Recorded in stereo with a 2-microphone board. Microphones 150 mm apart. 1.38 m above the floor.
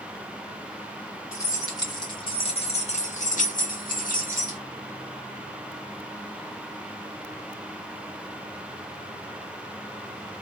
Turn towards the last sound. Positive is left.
turn(degrees=65)  # may be behind; listen again after turning